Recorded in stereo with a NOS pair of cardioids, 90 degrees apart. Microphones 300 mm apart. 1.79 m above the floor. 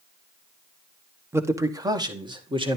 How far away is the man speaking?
About 1.2 m.